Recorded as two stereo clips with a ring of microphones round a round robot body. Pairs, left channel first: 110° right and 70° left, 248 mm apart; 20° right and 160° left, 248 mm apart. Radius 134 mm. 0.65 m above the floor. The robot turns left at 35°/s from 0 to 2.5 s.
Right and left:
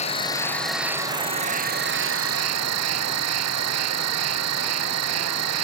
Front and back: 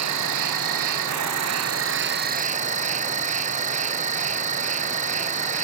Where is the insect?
Straight behind; by 5.6 s 95° left.